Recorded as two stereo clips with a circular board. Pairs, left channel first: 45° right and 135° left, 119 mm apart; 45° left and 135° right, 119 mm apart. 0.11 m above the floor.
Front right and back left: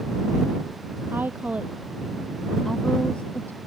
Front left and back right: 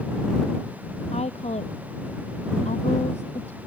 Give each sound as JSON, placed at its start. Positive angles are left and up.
{"t": 1.1, "sound": "a woman speaking", "azimuth_deg": 65}